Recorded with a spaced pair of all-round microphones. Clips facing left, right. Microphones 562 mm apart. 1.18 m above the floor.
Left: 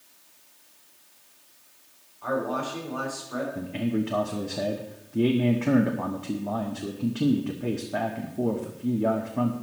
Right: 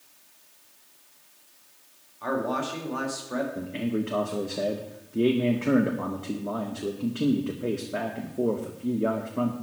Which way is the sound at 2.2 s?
85° right.